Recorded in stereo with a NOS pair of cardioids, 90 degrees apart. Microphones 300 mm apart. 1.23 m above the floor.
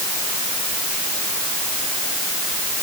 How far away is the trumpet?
I don't hear a trumpet.